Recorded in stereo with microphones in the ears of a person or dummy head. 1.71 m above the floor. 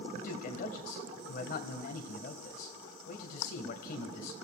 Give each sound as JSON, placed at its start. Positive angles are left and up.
{"t": 0.1, "sound": "a man speaking", "side_deg": 50, "distance_m": 1.7}